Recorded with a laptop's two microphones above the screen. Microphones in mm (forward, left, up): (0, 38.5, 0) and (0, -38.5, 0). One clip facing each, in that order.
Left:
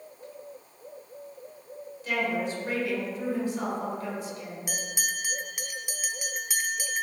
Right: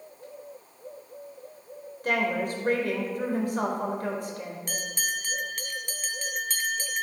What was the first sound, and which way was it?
A woman speaking, 50° right (ahead or behind).